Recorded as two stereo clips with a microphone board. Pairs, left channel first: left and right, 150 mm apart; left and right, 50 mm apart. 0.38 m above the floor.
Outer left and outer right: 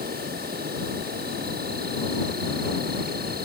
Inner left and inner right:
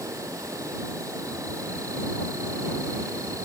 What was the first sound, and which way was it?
An insect, 85° right.